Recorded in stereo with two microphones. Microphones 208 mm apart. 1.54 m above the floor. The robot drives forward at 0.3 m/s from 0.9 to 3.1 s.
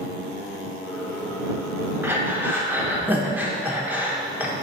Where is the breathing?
10° right (ahead or behind), 0.8 m.